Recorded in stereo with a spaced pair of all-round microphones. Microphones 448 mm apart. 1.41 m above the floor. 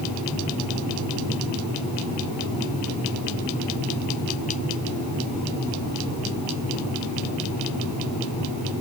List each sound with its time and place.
Only background noise.